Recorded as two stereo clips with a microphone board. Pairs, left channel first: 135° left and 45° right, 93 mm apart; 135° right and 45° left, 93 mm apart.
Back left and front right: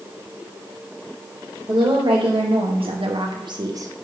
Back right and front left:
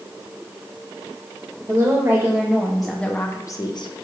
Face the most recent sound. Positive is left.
turn(degrees=-95)